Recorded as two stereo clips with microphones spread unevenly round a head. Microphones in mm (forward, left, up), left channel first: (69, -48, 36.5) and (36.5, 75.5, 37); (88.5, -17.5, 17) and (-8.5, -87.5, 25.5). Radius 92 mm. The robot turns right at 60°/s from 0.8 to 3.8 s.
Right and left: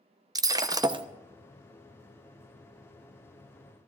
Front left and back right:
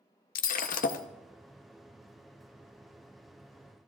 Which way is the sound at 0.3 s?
40° left.